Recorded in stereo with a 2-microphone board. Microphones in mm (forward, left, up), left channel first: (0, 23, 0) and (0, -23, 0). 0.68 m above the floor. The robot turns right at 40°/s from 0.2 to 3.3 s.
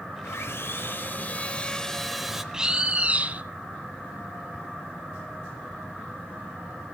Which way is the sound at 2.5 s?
165° right.